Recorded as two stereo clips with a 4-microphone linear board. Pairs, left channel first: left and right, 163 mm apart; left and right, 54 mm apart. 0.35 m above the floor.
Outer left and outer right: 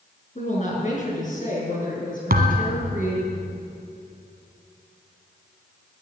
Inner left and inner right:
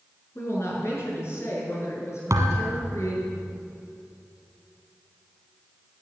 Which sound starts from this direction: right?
A thud, at 2.3 s.